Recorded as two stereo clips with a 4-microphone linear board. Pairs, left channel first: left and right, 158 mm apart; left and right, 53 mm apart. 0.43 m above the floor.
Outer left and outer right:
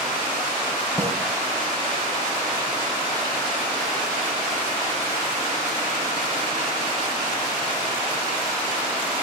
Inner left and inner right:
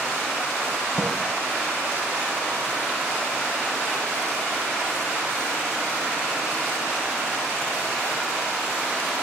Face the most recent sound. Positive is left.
turn(degrees=15)  # may be behind; listen again after turning